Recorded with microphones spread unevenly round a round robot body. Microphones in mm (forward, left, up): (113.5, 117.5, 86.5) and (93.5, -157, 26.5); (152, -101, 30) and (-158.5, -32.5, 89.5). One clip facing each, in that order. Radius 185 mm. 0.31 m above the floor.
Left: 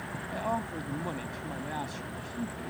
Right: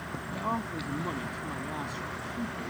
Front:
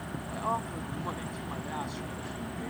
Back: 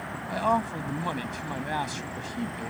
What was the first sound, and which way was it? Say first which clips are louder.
A man speaking: even, back 10 dB; straight behind.